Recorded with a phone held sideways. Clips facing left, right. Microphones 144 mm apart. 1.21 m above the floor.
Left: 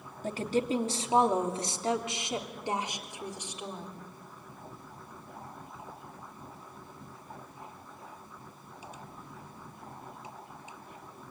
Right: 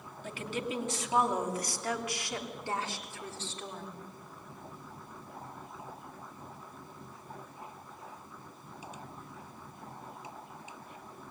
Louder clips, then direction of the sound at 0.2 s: Left 7 dB; 40° left (ahead or behind).